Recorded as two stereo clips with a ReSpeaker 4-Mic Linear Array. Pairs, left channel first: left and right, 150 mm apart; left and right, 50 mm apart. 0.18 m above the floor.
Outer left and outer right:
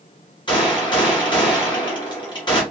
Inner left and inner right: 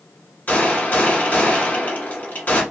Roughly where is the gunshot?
Left.